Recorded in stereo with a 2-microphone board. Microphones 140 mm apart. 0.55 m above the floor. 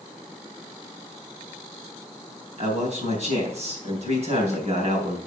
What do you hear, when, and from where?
2.6 s a man speaking: 50° right (ahead or behind), 3.5 m